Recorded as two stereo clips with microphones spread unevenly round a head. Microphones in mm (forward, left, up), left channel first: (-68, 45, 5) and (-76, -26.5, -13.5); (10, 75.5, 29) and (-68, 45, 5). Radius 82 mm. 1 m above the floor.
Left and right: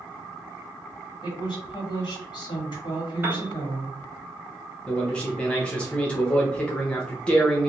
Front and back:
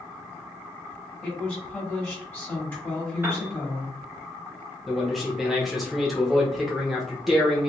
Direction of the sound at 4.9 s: 170° left.